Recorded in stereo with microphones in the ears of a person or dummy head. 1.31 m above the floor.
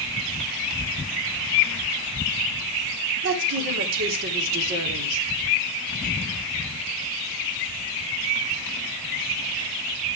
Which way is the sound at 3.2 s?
60° right (ahead or behind).